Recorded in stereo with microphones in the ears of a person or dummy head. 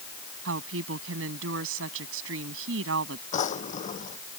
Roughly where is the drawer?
Left.